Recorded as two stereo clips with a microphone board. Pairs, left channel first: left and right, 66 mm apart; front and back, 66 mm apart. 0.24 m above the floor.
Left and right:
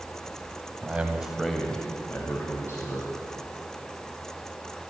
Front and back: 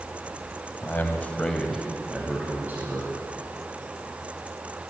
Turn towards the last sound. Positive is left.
turn(degrees=125)